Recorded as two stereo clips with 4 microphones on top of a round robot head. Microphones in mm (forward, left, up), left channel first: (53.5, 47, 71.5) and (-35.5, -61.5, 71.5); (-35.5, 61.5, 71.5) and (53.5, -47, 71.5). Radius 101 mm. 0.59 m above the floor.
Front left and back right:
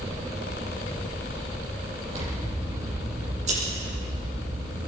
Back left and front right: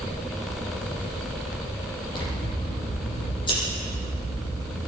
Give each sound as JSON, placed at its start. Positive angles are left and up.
{"t": 2.1, "sound": "scissors", "azimuth_deg": -170, "distance_m": 9.0}